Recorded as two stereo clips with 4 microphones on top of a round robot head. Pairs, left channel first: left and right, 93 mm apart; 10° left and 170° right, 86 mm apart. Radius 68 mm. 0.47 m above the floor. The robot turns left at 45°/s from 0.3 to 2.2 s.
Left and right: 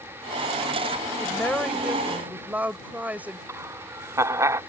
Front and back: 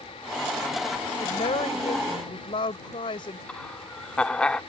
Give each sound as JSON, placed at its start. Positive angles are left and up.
{"t": 1.2, "sound": "a woman speaking", "azimuth_deg": 25}
{"t": 3.5, "sound": "laughter", "azimuth_deg": -65}